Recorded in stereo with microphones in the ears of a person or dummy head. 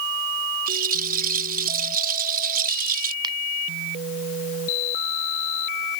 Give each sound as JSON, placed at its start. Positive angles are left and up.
{"t": 0.7, "sound": "a rattle", "side_deg": -40}
{"t": 3.2, "sound": "a finger snap", "side_deg": -25}